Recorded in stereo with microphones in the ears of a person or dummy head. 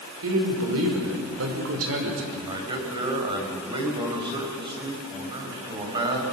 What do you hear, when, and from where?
0.2 s a man speaking: 85° right, 5 m; by 2.2 s 75° right (ahead or behind), 4.5 m
2.3 s a man speaking: 25° right (ahead or behind), 5 m